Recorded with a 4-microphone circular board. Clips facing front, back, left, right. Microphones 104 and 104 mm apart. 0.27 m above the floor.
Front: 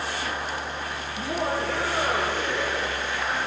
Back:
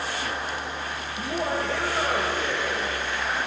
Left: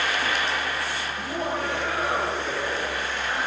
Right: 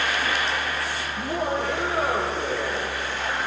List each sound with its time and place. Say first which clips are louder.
1.2 s laughter: even, right 4 dB; 50° right, 9.5 m; by 3.4 s 55° right, 11.5 m